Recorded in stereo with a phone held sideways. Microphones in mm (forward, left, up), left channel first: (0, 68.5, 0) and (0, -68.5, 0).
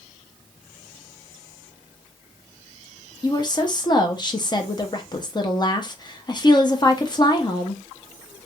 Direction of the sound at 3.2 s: 30° left (ahead or behind).